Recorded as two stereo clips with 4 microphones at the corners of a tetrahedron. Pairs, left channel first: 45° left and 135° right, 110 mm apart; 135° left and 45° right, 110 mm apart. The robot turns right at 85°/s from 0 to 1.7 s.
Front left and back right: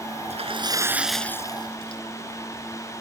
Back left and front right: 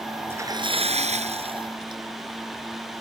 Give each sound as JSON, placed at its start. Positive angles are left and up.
{"t": 0.3, "sound": "a splash", "azimuth_deg": -115}